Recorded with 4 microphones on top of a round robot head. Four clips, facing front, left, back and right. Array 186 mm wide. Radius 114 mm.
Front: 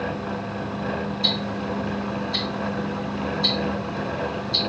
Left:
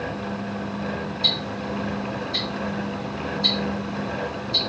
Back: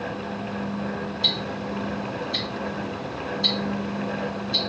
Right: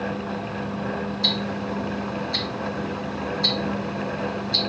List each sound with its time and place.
1.2 s ticking: 120° right, 2.5 m